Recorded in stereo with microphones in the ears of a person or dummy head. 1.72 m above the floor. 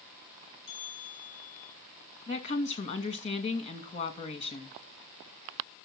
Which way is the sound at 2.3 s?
35° left (ahead or behind).